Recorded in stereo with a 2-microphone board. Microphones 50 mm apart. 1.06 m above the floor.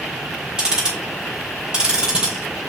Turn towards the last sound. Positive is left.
turn(degrees=-20)  # may be behind; listen again after turning